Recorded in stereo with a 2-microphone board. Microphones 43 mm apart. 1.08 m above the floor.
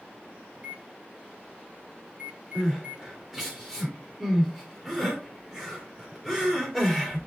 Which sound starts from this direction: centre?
Crying, at 2.5 s.